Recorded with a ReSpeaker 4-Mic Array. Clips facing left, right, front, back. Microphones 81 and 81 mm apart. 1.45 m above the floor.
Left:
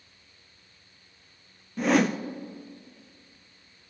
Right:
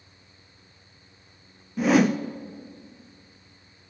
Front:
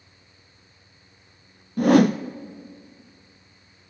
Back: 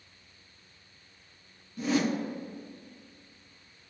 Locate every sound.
1.8 s a whoosh: 5° right, 0.5 m